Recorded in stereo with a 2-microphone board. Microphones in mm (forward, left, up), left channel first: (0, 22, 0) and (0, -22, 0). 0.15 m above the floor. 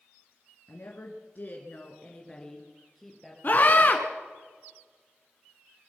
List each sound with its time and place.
0.7 s a woman speaking: 55° left (ahead or behind), 2.5 m; by 3.3 s centre (ahead or behind), 3.5 m
3.4 s a scream: 40° left (ahead or behind), 1.3 m